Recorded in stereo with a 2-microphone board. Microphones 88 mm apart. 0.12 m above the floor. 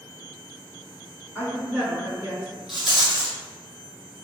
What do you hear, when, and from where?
1.4 s a woman speaking: 20° left (ahead or behind), 1.6 m; by 2.6 s 20° right (ahead or behind), 1.6 m
2.7 s a rattle: 5° right (ahead or behind), 0.8 m